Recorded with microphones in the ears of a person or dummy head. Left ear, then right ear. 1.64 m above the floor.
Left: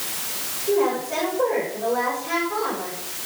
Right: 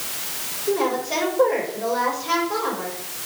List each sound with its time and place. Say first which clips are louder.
0.7 s a woman speaking: left 1 dB; 85° right, 6 m